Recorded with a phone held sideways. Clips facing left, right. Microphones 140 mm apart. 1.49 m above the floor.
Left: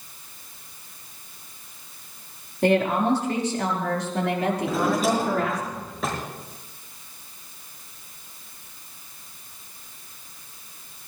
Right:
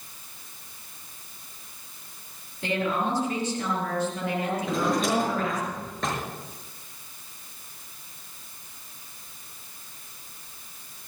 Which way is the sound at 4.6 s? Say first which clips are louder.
Left 2 dB; 5° left (ahead or behind).